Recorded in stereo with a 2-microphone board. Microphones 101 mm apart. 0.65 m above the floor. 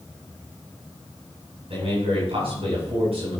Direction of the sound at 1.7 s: 70° right (ahead or behind).